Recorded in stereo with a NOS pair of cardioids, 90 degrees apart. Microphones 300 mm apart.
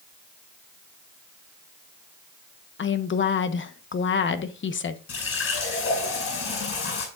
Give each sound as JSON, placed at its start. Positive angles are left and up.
{"t": 2.8, "sound": "a woman speaking", "azimuth_deg": 40, "distance_m": 1.1}
{"t": 5.1, "sound": "a running tap", "azimuth_deg": 50, "distance_m": 6.0}